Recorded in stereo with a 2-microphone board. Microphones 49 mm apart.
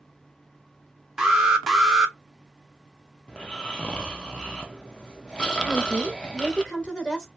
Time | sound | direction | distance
1.2 | an alarm | 10° right (ahead or behind) | 0.7 m
3.3 | snoring | 15° left (ahead or behind) | 0.6 m
5.6 | a woman speaking | 25° left (ahead or behind) | 0.7 m